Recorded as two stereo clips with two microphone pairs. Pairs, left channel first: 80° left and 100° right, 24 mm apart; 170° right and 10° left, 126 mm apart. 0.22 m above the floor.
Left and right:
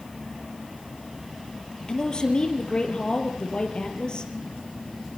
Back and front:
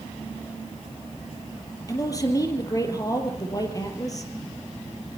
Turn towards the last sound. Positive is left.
turn(degrees=125)